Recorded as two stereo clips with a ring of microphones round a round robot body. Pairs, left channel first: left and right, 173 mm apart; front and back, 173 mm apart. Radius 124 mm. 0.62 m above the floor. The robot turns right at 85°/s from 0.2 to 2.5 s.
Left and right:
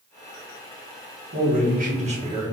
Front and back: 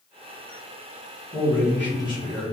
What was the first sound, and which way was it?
A man speaking, 125° right.